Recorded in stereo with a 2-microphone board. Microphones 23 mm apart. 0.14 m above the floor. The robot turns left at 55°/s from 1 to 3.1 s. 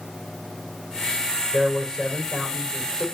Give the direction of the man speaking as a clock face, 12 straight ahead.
5 o'clock.